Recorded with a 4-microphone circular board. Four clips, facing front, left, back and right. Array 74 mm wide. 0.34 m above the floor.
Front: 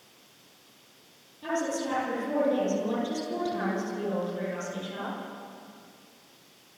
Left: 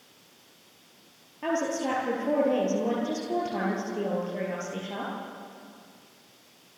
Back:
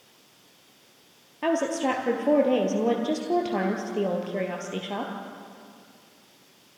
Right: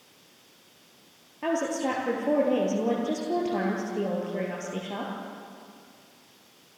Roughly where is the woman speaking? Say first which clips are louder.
Right 1 dB, back 5 dB; behind.